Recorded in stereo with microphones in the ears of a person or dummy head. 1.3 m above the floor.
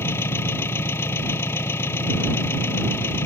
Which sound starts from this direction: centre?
An engine running, at 0.0 s.